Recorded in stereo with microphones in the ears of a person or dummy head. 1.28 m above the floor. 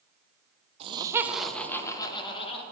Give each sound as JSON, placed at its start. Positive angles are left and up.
{"t": 0.8, "sound": "laughter", "side_deg": -30, "distance_m": 0.9}